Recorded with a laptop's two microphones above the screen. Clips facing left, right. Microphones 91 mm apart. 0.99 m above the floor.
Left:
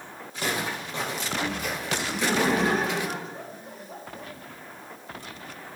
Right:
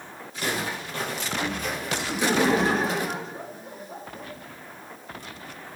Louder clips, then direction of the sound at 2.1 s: Right 3 dB; centre (ahead or behind).